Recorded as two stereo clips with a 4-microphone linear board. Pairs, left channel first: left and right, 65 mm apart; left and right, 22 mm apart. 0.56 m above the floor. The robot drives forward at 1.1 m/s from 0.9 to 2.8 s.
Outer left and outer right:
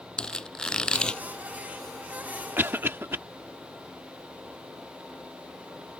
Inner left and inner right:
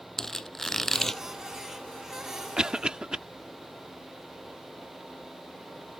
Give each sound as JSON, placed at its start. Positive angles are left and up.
{"t": 0.2, "sound": "a squeak", "side_deg": 10}
{"t": 2.6, "sound": "a cough", "side_deg": -30}